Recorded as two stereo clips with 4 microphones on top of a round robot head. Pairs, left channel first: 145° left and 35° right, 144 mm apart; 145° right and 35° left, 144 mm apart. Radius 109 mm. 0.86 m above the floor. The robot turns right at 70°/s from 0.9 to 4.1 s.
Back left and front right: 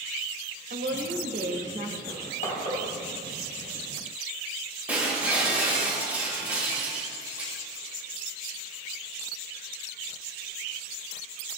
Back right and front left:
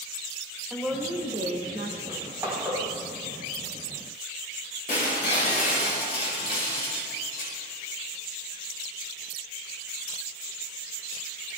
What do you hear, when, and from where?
0.7 s a woman speaking: 50° right, 2.5 m; by 2.0 s 25° left, 2.5 m
2.1 s crushing: 85° left, 4.5 m; by 2.8 s 135° left, 4.5 m
4.9 s breaking glass: 115° right, 5 m